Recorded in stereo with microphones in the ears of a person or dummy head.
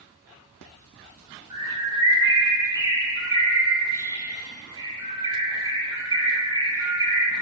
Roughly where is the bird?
Right.